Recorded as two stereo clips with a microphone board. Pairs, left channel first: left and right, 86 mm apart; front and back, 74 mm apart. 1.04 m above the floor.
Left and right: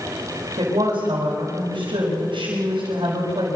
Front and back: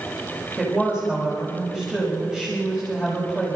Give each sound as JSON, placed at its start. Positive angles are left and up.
{"t": 0.6, "sound": "a woman speaking", "azimuth_deg": -100, "distance_m": 5.5}